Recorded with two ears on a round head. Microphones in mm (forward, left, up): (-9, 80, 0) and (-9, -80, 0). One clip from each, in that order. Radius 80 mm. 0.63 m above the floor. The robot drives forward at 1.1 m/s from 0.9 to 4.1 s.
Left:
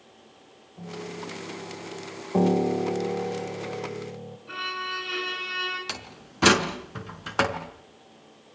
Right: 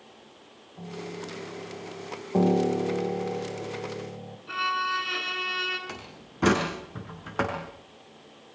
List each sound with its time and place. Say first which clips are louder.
0.8 s a piano: left 1 dB; 25° right (ahead or behind), 4 m; by 2.2 s 40° right (ahead or behind), 3 m
2.3 s a piano: left 1 dB; 10° left (ahead or behind), 1.0 m; by 4.4 s 5° left (ahead or behind), 2.5 m
4.5 s a violin: right 4 dB; 15° right (ahead or behind), 7.5 m
5.9 s a door slam: left 5 dB; 75° left (ahead or behind), 5 m